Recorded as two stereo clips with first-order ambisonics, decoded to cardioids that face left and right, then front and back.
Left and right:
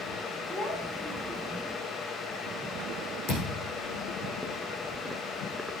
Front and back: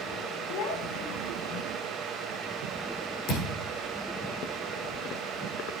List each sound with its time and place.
0.5 s a child speaking: 5° left, 2 m; by 1.6 s 20° right, 2.5 m
3.3 s a thud: 40° left, 5 m